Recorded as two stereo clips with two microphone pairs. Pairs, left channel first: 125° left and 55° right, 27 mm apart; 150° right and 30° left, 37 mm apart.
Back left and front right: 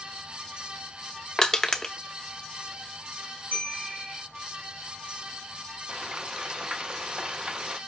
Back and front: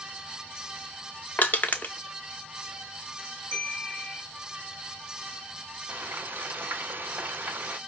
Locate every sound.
1.4 s crushing: 170° right, 0.6 m
3.5 s a bell: 35° right, 3.5 m
5.9 s frying: straight ahead, 0.5 m